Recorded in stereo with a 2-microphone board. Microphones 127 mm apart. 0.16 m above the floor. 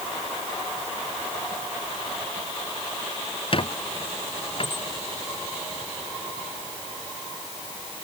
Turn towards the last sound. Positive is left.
turn(degrees=45)  # may be behind; listen again after turning